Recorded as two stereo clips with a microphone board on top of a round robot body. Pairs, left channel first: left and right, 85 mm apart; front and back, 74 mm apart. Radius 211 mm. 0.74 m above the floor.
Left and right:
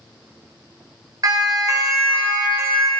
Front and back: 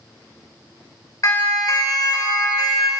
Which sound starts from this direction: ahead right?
A siren, at 1.2 s.